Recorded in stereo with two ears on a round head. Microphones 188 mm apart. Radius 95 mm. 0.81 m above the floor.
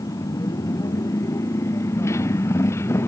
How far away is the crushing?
No crushing in this recording.